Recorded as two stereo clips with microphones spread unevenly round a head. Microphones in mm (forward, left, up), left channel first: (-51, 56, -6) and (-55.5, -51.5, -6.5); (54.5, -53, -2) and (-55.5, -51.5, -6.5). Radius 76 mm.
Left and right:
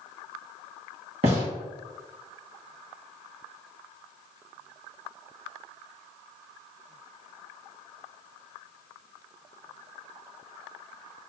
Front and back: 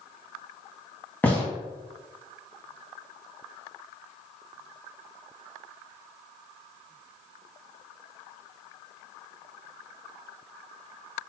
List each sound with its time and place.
1.2 s a gunshot: 70° right, 1.4 m